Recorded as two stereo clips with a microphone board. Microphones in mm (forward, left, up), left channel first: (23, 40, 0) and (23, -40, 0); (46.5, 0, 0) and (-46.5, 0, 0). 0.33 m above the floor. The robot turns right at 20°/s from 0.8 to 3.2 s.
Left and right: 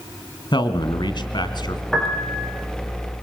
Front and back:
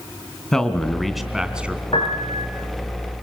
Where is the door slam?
No door slam in this recording.